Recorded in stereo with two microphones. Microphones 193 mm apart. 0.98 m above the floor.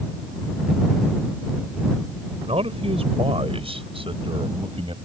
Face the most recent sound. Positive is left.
turn(degrees=-30)  # may be behind; listen again after turning